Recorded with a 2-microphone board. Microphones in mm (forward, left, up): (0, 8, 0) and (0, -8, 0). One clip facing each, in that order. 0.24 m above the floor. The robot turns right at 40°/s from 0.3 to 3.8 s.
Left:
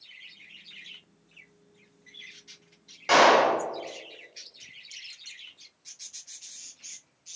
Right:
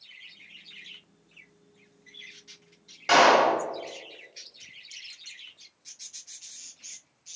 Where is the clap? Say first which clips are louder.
Even; 5° right (ahead or behind), 0.8 m; by 3.6 s 5° left (ahead or behind), 0.8 m.